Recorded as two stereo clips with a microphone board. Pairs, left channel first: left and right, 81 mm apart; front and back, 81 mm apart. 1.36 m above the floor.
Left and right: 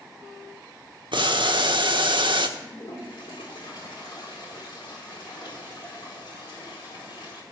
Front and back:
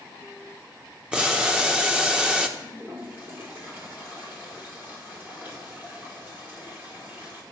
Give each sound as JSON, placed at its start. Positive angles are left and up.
{"t": 1.1, "sound": "boiling", "azimuth_deg": -100, "distance_m": 1.2}
{"t": 2.6, "sound": "a toilet flushing", "azimuth_deg": 115, "distance_m": 5.0}